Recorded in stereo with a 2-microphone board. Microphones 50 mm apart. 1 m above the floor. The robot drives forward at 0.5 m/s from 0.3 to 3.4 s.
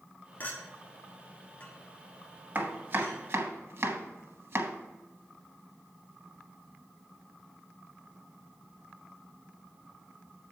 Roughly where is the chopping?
Right.